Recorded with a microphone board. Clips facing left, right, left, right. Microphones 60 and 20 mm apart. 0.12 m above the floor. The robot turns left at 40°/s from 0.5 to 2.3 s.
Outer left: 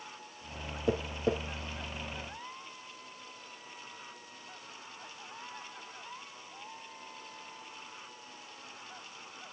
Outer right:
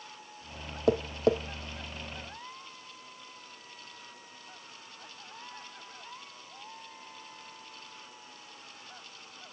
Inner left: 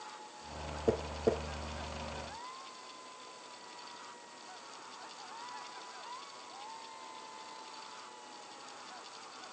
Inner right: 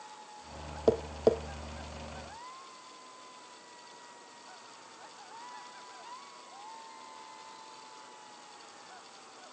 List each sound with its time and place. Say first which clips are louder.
0.9 s tapping: outer right 5 dB, inner right 5 dB; 75° right (ahead or behind), 2 m; by 1.4 s 65° right (ahead or behind), 2 m